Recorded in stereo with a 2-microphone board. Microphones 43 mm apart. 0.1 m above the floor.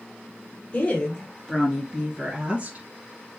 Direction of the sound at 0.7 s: 25° left (ahead or behind).